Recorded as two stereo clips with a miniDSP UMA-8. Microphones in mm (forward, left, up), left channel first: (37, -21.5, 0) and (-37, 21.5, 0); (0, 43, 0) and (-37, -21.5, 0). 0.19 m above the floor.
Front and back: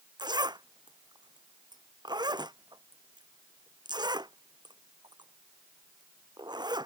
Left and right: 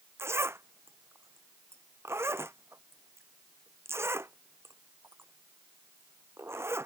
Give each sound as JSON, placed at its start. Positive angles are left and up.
{"t": 0.2, "sound": "a zipper", "azimuth_deg": -175}